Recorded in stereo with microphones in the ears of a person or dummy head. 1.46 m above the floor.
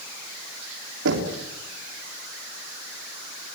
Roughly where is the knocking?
Right.